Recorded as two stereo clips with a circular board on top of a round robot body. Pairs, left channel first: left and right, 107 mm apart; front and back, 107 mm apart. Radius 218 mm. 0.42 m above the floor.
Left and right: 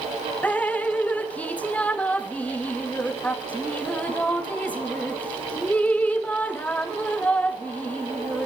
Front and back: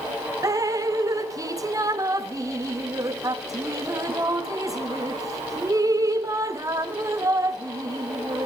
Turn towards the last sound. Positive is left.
turn(degrees=155)